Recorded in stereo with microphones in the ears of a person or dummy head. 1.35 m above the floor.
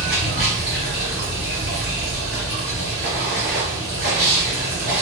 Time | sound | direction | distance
0.0 | running water | 45° right (ahead or behind) | 1.8 m